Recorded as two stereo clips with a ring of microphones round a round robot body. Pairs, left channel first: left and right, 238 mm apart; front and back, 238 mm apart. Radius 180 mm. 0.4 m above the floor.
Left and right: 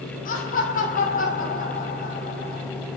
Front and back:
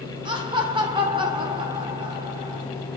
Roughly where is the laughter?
Behind left.